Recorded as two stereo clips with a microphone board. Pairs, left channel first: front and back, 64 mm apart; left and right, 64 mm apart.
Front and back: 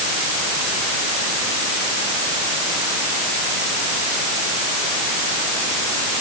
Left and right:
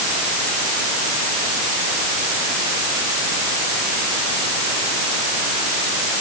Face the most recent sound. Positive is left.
No sound to turn to.